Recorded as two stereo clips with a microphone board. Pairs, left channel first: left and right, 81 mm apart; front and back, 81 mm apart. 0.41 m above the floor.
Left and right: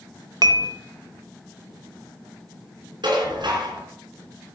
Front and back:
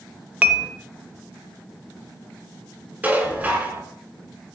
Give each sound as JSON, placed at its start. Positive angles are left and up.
{"t": 0.4, "sound": "dishes clattering", "azimuth_deg": -110, "distance_m": 0.8}
{"t": 3.0, "sound": "dishes clattering", "azimuth_deg": -110, "distance_m": 3.0}